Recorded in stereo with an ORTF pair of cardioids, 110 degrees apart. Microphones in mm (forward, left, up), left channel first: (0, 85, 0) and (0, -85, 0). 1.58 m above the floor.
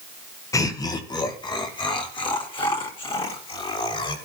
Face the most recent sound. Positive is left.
turn(degrees=35)